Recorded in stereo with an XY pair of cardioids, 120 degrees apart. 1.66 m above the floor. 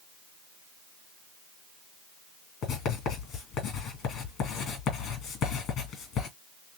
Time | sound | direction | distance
2.6 | writing | 65° left | 2 m